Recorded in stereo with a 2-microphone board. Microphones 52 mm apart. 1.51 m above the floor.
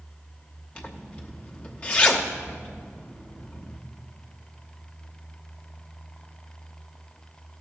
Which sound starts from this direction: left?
A zipper, at 0.8 s.